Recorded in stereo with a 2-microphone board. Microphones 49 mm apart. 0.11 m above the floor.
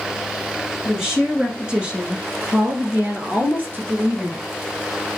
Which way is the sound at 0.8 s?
10° right (ahead or behind).